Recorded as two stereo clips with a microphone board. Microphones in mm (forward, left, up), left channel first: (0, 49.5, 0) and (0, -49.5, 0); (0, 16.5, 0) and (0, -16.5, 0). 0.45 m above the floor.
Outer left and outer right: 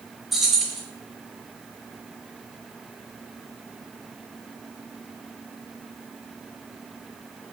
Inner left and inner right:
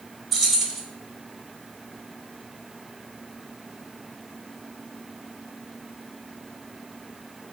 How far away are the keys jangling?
About 0.6 m.